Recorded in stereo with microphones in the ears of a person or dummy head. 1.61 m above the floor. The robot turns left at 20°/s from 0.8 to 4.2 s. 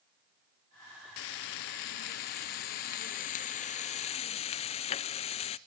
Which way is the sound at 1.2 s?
110° left.